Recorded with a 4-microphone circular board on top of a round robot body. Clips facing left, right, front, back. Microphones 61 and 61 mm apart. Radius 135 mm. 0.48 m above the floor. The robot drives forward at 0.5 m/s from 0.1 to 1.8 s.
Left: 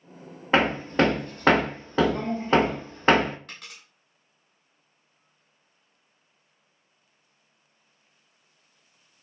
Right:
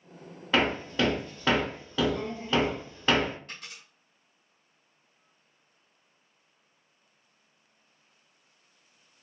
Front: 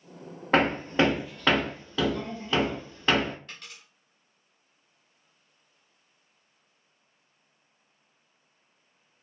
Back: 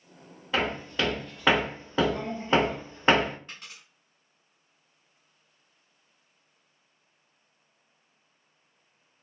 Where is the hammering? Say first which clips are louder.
Left 5 dB, front 6 dB; 35° left, 0.6 m; by 3.4 s 125° left, 0.5 m.